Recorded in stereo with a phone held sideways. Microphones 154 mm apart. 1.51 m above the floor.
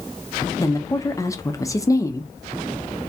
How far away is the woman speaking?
About 0.8 m.